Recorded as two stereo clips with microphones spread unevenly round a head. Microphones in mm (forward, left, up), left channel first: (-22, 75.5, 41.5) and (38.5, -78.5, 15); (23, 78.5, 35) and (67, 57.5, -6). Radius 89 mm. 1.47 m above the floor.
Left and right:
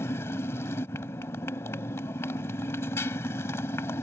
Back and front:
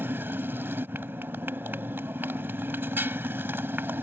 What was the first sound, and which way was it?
A motorcycle, 40° left.